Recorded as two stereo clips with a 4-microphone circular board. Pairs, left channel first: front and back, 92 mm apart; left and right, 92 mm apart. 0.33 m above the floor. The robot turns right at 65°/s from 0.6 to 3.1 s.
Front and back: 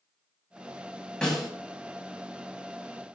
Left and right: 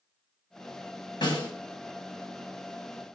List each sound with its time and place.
1.2 s a snare drum: 80° left, 1.9 m; by 1.5 s 95° left, 1.9 m